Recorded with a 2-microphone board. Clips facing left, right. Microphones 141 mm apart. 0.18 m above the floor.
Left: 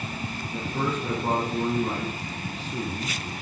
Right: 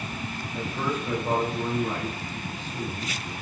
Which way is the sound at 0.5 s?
70° left (ahead or behind).